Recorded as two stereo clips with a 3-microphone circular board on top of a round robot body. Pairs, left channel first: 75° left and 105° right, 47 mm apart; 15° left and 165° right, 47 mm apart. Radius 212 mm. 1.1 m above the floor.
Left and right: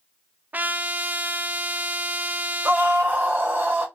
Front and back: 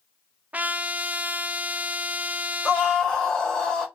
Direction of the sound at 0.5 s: 130° right.